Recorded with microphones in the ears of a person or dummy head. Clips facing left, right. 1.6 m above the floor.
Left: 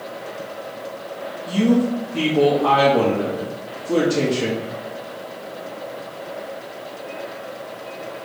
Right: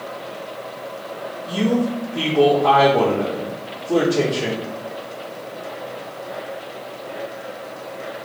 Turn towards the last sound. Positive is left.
turn(degrees=80)